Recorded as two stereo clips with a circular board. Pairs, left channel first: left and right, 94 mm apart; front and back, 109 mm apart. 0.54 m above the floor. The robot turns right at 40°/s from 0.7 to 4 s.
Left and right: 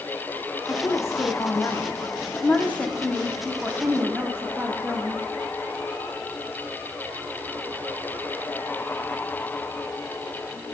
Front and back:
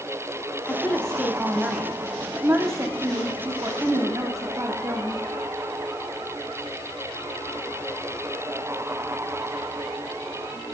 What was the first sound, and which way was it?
A woman speaking, 65° left.